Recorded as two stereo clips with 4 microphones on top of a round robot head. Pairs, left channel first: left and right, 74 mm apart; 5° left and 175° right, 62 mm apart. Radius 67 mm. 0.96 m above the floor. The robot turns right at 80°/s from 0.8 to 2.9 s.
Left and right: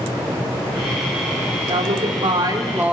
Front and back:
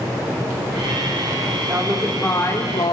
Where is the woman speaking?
115° right, 3.5 m; by 2.9 s 15° right, 3.5 m.